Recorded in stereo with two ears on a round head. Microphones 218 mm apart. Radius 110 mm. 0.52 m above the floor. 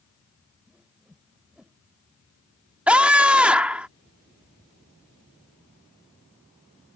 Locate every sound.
0.7 s a whoosh: 5° right (ahead or behind)
2.9 s a scream: 5° right (ahead or behind)